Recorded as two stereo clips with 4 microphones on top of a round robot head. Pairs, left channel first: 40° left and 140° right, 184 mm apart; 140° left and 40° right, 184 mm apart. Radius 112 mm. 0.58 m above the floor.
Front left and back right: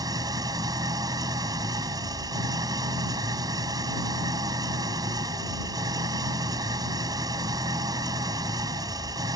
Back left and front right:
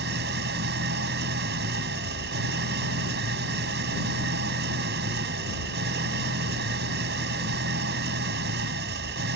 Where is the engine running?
70° right.